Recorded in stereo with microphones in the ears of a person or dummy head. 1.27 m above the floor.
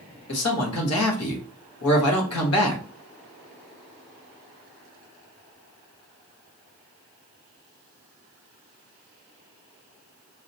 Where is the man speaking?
90° left, 1.4 m.